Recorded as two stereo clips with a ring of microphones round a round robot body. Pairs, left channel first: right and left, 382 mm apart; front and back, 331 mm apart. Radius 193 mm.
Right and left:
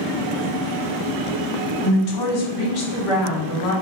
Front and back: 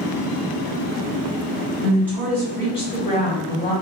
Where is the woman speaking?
90° right, 1.8 m; by 3.7 s 60° right, 2 m.